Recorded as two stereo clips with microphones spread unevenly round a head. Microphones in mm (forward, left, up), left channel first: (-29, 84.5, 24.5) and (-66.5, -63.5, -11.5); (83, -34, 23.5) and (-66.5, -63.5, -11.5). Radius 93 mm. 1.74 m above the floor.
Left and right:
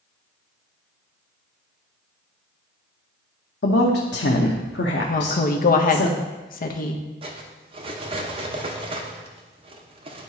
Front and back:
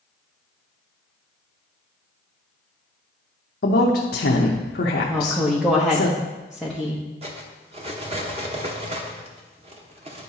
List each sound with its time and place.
3.6 s a woman speaking: 45° left, 0.8 m
5.1 s a woman speaking: 100° left, 1.0 m
7.2 s cutlery clinking: 145° right, 1.0 m